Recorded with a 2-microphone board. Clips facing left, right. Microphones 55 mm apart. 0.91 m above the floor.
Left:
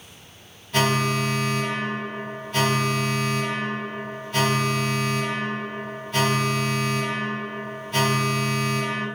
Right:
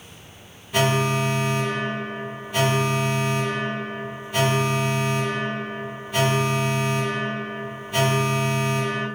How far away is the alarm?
About 1.1 m.